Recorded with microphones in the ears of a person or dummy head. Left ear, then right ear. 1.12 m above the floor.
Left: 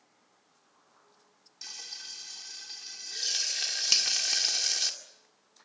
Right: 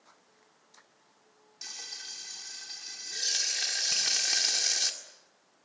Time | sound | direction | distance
1.6 | frying | 10° left (ahead or behind) | 2.5 m
3.9 | a finger snap | 60° left (ahead or behind) | 3.5 m